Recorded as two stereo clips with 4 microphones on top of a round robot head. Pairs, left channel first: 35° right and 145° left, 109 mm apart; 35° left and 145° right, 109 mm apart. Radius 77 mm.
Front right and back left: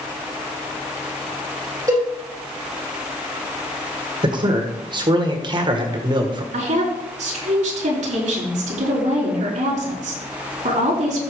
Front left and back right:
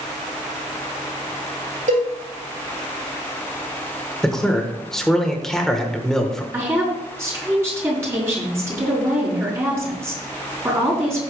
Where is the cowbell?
155° right, 5 m.